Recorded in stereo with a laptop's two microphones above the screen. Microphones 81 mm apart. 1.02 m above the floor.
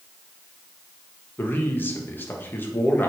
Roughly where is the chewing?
No chewing in this recording.